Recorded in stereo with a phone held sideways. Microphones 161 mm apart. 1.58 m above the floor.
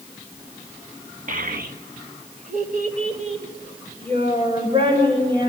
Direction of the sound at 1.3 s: 55° right (ahead or behind).